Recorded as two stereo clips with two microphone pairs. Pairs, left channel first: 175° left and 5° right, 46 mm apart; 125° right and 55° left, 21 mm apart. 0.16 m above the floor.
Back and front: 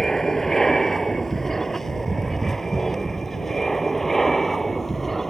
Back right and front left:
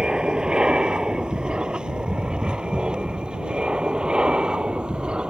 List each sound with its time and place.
0.0 s an aircraft: 90° left